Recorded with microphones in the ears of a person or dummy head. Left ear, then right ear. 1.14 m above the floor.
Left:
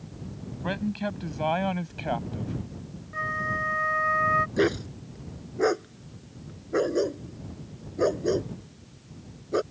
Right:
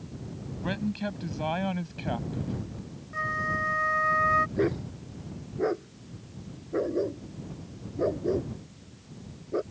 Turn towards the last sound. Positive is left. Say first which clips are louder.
# left 3 dB
turn(degrees=75)  # may be behind; listen again after turning